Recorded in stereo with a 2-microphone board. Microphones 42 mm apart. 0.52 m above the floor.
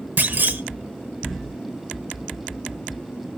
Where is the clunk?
50° right (ahead or behind), 0.7 m.